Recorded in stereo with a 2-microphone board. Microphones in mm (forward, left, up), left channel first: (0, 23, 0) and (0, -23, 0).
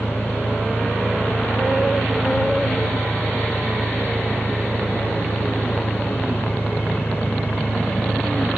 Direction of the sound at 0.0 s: 90° right.